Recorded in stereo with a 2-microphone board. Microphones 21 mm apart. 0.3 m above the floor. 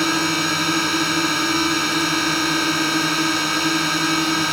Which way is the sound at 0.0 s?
Centre (ahead or behind).